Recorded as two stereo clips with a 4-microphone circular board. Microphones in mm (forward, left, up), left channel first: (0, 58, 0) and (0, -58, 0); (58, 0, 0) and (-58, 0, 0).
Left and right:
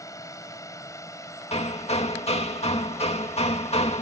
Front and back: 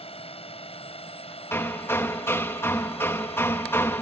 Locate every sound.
0.0 s a drone: 30° left; by 4.0 s 25° left
1.5 s hammering: 70° left